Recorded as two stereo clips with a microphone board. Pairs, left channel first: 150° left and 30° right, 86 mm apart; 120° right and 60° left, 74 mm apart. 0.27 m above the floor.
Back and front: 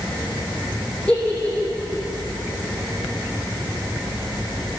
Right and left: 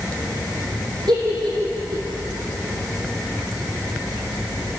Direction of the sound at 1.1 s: 75° left.